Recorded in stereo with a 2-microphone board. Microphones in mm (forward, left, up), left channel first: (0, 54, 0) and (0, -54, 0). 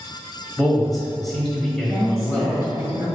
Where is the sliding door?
I don't hear a sliding door.